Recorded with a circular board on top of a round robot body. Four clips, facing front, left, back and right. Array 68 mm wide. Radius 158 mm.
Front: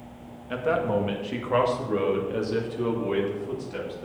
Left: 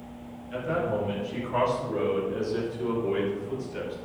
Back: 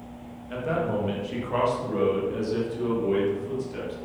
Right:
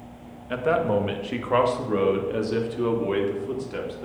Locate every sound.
0.5 s a man speaking: 70° right, 2 m; by 4.0 s 75° right, 4 m